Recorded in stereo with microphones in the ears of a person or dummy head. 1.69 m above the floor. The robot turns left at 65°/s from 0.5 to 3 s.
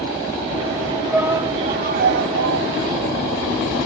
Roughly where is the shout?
Ahead.